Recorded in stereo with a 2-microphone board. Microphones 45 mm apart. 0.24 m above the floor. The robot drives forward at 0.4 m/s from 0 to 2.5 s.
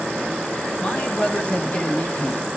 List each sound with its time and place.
0.8 s a man speaking: 25° left (ahead or behind), 1.9 m; by 2.4 s 30° left (ahead or behind), 1.7 m